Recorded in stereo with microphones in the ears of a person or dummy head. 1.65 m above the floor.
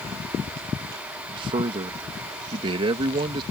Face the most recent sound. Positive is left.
turn(degrees=-30)  # may be behind; listen again after turning